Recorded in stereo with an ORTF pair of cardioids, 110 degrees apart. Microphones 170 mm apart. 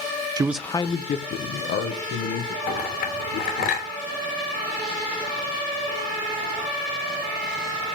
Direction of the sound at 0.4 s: 25° right.